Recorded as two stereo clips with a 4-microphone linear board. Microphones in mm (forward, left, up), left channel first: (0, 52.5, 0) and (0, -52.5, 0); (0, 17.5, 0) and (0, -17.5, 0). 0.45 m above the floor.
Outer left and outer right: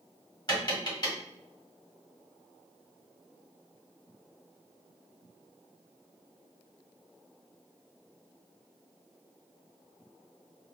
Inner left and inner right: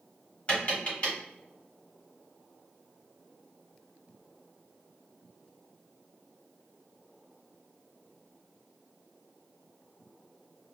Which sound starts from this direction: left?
Tapping, at 0.5 s.